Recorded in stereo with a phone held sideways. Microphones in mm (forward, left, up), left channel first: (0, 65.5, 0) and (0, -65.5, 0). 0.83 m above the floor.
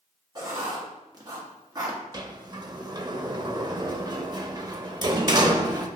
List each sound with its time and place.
0.3 s writing: 30° right (ahead or behind), 1.4 m
2.1 s a sliding door: 35° right (ahead or behind), 0.6 m